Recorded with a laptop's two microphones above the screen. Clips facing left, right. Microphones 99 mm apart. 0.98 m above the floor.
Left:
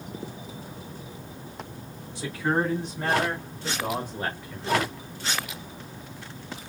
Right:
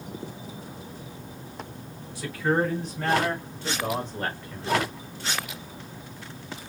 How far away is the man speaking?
About 3.5 m.